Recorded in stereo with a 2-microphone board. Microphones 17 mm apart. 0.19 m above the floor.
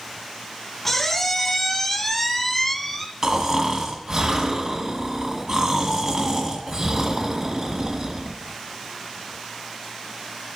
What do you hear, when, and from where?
0.8 s a squeak: 10° left (ahead or behind), 1.0 m
3.2 s snoring: 30° right (ahead or behind), 1.7 m